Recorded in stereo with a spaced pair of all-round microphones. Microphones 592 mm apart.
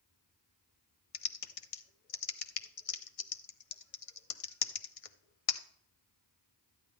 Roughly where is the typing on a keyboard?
Left.